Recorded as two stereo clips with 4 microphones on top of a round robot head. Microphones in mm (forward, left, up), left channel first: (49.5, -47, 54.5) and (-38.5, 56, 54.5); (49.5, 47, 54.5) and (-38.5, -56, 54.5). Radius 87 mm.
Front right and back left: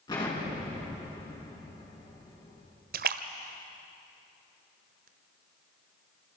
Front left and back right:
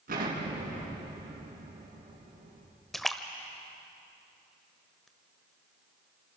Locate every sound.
0.1 s an explosion: 110° right, 6.5 m
2.9 s a splash: 140° left, 1.0 m